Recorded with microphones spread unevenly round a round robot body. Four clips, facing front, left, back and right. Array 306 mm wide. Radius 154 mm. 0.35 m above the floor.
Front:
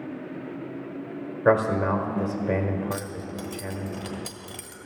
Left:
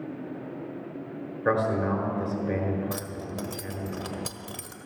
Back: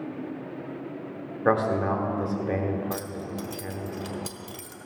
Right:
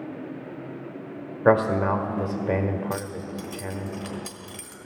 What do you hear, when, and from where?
1.4 s a man speaking: 90° right, 1.4 m
2.9 s keys jangling: 90° left, 1.3 m